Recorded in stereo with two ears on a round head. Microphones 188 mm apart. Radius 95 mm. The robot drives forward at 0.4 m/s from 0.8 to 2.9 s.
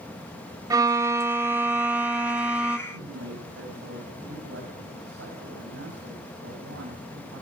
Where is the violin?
15° right (ahead or behind), 0.5 m; by 2.8 s 5° right (ahead or behind), 1.3 m.